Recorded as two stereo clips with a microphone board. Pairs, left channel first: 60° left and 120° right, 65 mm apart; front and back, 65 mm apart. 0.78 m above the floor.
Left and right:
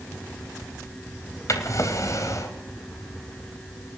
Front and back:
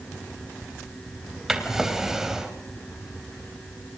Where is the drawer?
95° left, 3 m.